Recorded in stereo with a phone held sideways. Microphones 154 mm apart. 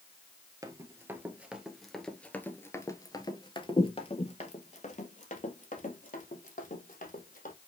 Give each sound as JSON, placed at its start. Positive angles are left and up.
{"t": 0.6, "sound": "running footsteps", "side_deg": -20, "distance_m": 1.8}